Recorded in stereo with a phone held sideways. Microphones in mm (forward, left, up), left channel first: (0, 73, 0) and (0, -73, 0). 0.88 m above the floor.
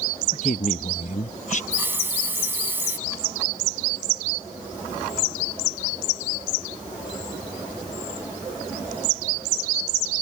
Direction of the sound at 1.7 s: 15° right (ahead or behind).